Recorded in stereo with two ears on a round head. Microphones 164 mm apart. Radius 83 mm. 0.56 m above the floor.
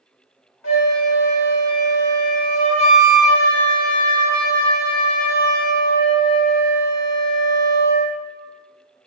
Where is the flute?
75° left (ahead or behind), 1.4 m.